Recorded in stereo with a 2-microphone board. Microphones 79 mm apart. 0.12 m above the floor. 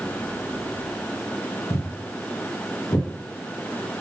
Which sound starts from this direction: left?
Footsteps, at 1.7 s.